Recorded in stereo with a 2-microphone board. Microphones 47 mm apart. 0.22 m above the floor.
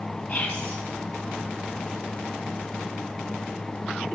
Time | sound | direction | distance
0.3 | whispering | 30° left (ahead or behind) | 1.3 m